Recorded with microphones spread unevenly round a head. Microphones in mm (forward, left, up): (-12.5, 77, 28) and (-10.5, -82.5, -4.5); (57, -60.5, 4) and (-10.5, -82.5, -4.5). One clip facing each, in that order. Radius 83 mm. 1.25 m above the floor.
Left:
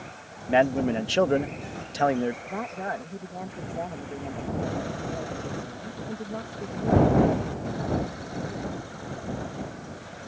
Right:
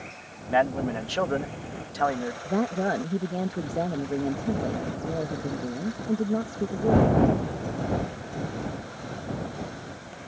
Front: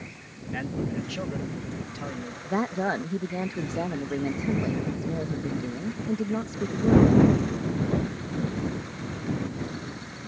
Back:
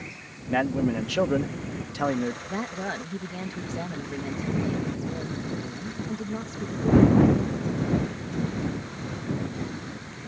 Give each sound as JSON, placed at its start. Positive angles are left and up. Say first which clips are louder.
{"t": 0.5, "sound": "a man speaking", "louder": "left 2 dB, back 7 dB", "azimuth_deg": 155}
{"t": 2.5, "sound": "a woman speaking", "louder": "right 7 dB, front 5 dB", "azimuth_deg": -40}